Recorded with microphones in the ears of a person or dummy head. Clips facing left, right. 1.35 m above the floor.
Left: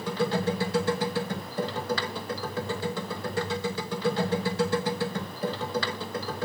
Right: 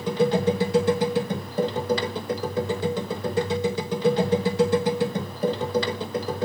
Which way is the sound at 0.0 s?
20° right (ahead or behind).